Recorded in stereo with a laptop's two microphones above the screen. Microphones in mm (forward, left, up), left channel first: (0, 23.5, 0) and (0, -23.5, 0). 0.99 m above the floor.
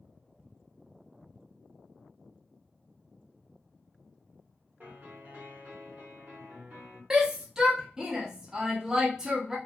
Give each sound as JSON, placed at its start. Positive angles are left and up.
{"t": 4.8, "sound": "a piano", "side_deg": -45, "distance_m": 1.1}
{"t": 7.1, "sound": "a shout", "side_deg": -10, "distance_m": 0.7}